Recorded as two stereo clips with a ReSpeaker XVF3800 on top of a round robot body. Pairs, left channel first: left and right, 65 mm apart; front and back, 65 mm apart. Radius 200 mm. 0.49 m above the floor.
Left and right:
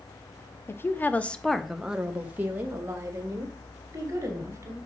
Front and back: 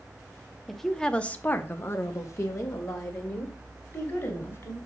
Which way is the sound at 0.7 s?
90° left.